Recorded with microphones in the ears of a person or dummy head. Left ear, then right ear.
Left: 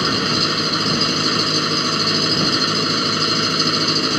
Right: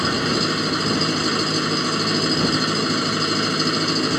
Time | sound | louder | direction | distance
0.0 | an engine running | left 3 dB | 20° left (ahead or behind) | ?